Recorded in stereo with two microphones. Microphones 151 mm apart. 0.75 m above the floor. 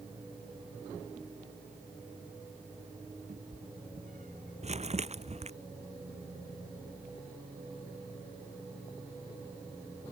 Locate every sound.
3.3 s a cat meowing: 65° right (ahead or behind)
4.6 s crumpling: 45° right (ahead or behind)